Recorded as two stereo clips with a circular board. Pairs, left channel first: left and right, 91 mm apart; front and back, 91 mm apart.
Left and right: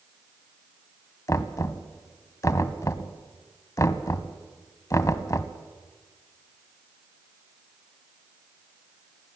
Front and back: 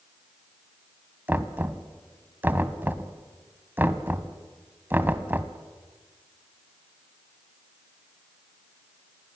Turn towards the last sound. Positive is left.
turn(degrees=125)